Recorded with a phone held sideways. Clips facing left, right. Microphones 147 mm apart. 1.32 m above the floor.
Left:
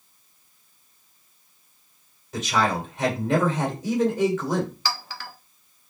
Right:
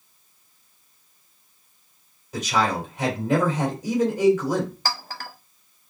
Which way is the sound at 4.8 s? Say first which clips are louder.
Right 1 dB; 50° right (ahead or behind).